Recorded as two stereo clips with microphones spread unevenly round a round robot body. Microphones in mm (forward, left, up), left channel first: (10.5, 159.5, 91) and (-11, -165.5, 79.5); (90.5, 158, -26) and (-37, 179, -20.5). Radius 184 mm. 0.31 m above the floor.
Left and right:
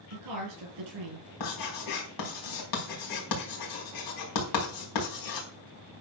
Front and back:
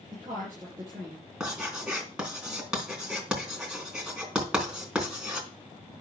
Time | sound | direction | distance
0.1 | a woman speaking | 115° right | 5 m
1.4 | writing | 90° left | 4 m